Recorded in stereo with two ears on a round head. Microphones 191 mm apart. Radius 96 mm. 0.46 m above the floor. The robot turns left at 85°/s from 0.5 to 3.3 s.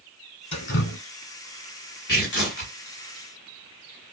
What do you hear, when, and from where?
0.5 s dripping: 150° left, 0.9 m; by 1.0 s 110° left, 0.9 m
2.1 s tearing paper: 110° left, 2 m; by 2.7 s 55° left, 2 m